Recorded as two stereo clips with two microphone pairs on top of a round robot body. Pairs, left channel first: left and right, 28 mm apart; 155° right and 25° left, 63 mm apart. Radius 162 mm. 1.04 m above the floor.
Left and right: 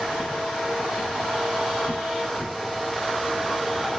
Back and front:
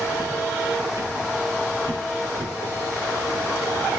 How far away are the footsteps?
About 8.5 m.